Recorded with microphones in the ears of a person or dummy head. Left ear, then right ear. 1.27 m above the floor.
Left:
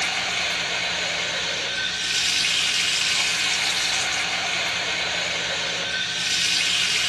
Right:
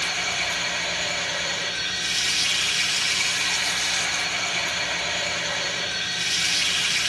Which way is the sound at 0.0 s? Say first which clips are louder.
Left 1 dB; 45° left (ahead or behind).